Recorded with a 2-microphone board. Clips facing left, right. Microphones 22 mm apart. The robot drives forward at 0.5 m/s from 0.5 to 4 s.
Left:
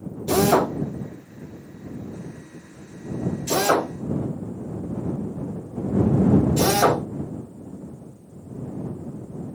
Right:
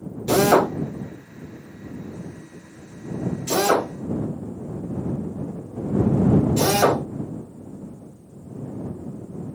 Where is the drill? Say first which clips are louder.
Right 2 dB; 35° right (ahead or behind), 1.3 m; by 7.0 s 15° right (ahead or behind), 2.5 m.